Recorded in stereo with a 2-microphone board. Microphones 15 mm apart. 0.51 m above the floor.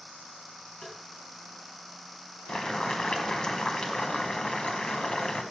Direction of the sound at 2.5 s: 75° left (ahead or behind).